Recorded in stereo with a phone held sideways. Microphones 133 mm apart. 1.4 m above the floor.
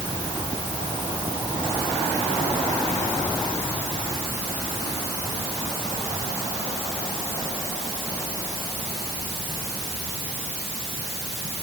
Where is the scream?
No scream in this recording.